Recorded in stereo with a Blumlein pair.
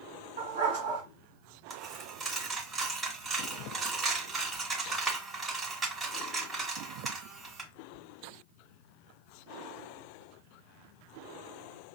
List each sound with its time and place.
0.4 s a dog barking: 55° right, 2.0 m
1.7 s a dropped coin: 15° right, 2 m